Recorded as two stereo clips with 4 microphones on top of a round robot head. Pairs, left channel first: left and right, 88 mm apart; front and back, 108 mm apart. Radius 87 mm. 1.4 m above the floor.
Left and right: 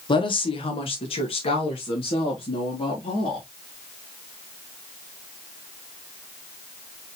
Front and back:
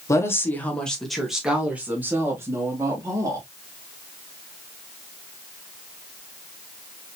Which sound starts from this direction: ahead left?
A woman speaking, at 0.1 s.